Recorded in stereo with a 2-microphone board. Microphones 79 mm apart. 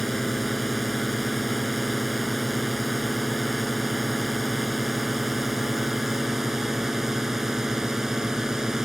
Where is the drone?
Centre (ahead or behind); by 8.9 s 10° right (ahead or behind).